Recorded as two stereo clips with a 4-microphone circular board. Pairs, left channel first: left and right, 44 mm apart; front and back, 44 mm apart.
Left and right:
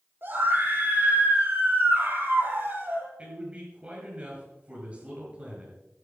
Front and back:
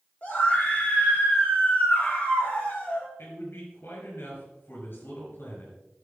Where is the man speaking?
30° right, 6 m.